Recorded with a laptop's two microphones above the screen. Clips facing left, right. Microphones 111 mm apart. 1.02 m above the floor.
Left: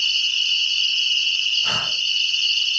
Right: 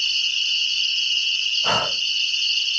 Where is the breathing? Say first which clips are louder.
Right 8 dB; 70° right (ahead or behind), 0.6 m.